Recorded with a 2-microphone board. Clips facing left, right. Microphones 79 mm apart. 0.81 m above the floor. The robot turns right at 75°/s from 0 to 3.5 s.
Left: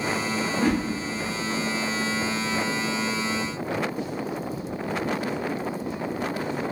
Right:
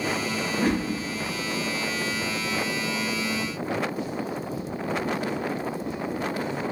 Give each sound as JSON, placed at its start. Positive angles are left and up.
{"t": 0.5, "sound": "a whoosh", "side_deg": -35, "distance_m": 1.1}